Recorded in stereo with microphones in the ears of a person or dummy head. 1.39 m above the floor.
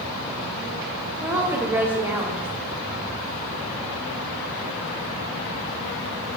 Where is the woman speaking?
5° right (ahead or behind), 0.5 m.